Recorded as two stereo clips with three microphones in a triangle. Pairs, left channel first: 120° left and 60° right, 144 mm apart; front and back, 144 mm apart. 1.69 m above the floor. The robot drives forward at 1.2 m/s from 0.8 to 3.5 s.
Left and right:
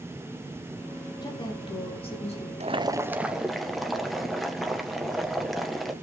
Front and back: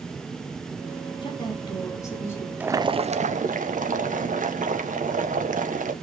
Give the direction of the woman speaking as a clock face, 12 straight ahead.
10 o'clock.